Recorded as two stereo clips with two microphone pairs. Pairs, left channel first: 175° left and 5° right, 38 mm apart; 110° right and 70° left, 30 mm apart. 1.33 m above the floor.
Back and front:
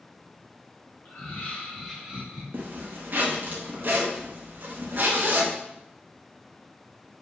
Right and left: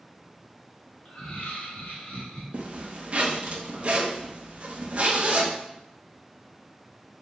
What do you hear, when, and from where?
1.1 s laughter: 150° right, 1.2 m; by 2.4 s 65° right, 0.9 m
2.5 s a zipper: 25° left, 0.5 m